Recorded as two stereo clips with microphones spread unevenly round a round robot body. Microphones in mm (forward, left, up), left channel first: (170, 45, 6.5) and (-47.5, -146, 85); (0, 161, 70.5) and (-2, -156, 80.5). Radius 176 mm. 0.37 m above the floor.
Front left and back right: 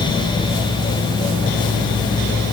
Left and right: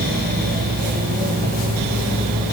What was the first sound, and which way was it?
Only background noise.